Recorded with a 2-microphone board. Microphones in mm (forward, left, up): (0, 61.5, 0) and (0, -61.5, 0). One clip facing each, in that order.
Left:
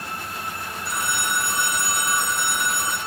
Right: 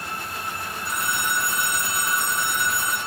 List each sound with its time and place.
0.8 s a phone ringing: 70° left (ahead or behind), 1.6 m